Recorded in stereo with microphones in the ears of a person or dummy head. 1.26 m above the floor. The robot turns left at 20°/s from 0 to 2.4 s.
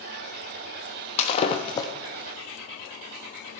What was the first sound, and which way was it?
Breaking glass, 40° left (ahead or behind).